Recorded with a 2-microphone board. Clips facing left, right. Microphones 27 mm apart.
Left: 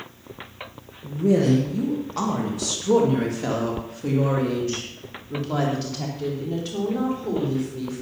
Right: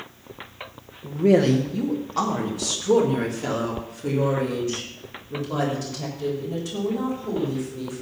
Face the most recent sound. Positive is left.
turn(degrees=30)  # may be behind; listen again after turning